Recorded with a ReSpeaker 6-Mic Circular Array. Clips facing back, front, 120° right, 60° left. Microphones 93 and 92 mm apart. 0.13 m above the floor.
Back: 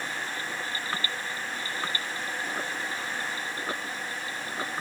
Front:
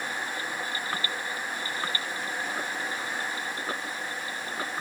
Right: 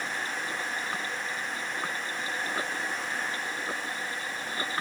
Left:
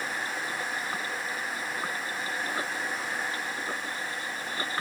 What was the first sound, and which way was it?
Only background noise.